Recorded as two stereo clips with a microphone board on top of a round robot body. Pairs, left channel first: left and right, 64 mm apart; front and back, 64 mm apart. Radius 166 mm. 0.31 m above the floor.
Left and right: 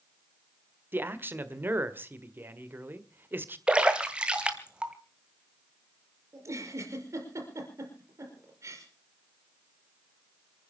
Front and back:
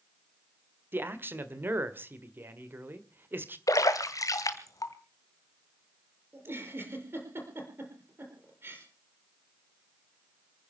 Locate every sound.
0.9 s a man speaking: 135° right, 1.9 m
3.7 s a splash: 15° right, 1.9 m
6.3 s a giggle: 130° right, 5 m